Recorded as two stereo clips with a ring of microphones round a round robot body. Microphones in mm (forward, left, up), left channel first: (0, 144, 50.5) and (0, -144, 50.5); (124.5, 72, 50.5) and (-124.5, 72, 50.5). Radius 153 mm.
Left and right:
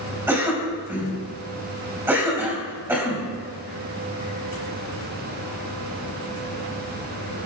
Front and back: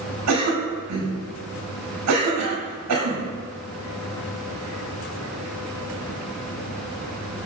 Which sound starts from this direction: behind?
A cough, at 0.3 s.